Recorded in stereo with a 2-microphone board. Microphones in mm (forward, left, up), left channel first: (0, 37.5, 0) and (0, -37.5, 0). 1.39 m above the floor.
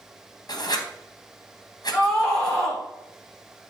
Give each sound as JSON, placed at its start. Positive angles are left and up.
{"t": 0.5, "sound": "writing", "side_deg": 60, "distance_m": 1.1}
{"t": 1.9, "sound": "a scream", "side_deg": 0, "distance_m": 4.0}